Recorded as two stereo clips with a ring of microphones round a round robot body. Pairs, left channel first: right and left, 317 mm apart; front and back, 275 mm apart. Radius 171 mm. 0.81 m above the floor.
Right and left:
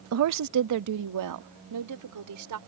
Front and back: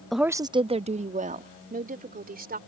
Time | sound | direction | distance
0.1 | a woman speaking | 90° left | ?